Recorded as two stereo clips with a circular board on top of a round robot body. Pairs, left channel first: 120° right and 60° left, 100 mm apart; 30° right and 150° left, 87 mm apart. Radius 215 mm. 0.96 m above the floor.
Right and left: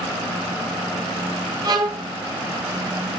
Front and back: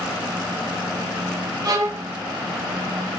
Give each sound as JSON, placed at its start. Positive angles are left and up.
{"t": 1.6, "sound": "a violin", "azimuth_deg": 105, "distance_m": 2.0}